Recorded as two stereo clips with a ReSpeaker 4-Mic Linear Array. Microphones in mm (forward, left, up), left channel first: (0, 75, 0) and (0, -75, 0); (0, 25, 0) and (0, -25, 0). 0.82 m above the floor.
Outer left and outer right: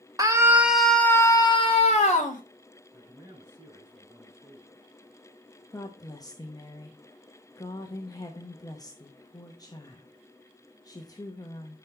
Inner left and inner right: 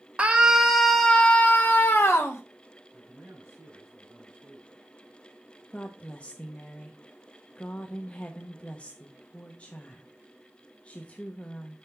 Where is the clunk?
I don't hear a clunk.